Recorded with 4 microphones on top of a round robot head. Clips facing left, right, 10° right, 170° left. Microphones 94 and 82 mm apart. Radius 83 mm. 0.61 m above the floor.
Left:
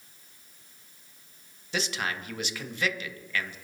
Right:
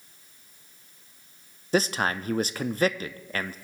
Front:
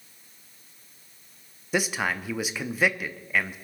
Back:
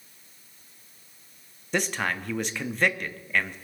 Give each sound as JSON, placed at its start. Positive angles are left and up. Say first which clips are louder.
{"t": 1.7, "sound": "a man speaking", "louder": "right 7 dB, front 1 dB", "azimuth_deg": -90, "distance_m": 0.7}